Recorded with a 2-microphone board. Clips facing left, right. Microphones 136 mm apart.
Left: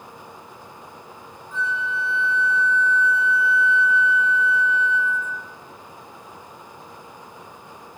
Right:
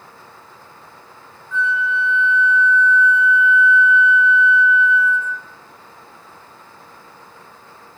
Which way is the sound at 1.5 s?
40° left (ahead or behind).